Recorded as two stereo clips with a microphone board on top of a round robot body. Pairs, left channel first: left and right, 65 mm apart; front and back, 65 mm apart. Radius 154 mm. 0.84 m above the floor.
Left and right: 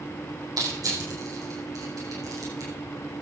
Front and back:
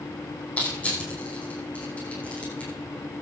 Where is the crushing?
65° right, 9 m.